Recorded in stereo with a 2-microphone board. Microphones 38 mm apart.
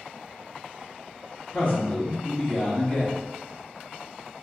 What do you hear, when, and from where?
1.5 s a man speaking: 30° left (ahead or behind), 1.2 m